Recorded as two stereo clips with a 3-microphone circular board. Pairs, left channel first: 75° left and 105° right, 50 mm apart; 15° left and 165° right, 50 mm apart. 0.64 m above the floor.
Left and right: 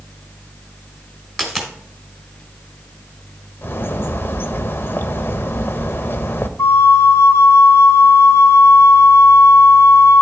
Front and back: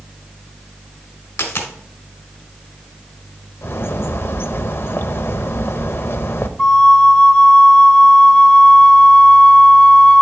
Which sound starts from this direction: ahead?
A dropped coin, at 1.4 s.